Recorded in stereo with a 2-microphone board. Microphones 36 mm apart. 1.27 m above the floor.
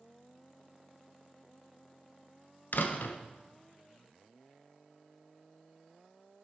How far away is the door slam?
About 0.7 m.